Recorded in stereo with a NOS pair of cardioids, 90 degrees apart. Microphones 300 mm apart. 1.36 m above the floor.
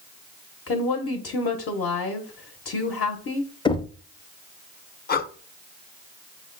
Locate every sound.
0.7 s a woman speaking: 50° left, 0.9 m
3.6 s knocking: 15° left, 0.5 m
5.1 s breathing: 30° left, 0.8 m